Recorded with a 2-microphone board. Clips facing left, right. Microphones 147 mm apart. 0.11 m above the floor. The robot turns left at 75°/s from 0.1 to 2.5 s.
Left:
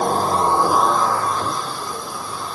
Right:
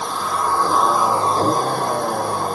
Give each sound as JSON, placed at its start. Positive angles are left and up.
{"t": 0.0, "sound": "a vehicle", "azimuth_deg": 55}